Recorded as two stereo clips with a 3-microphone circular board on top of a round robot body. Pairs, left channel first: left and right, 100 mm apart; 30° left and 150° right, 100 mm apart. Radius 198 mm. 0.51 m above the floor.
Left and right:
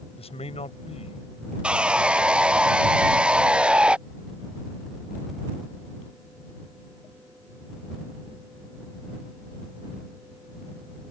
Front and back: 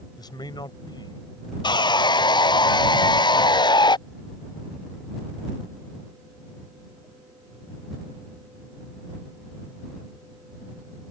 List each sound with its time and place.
0.2 s a man speaking: 80° left
1.6 s sawing: 10° right